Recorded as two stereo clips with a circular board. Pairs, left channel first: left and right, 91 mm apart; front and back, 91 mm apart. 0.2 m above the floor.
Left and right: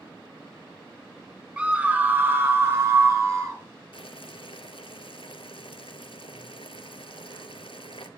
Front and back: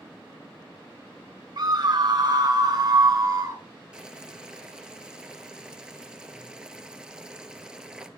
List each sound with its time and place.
1.6 s a scream: 165° right, 1.5 m; by 3.6 s 135° right, 2 m
3.9 s boiling: 100° left, 0.7 m